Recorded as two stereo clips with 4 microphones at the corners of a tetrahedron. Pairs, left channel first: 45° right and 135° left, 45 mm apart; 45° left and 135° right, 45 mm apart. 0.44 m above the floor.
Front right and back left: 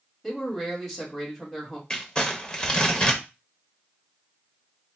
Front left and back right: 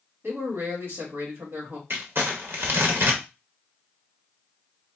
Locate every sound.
0.2 s a man speaking: 130° right, 1.9 m
1.9 s crumpling: 115° right, 0.8 m